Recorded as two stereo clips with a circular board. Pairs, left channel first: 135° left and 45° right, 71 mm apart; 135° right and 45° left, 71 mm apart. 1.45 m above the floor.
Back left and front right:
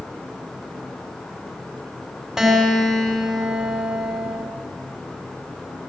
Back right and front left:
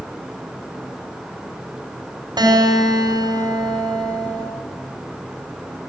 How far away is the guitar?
About 5.5 m.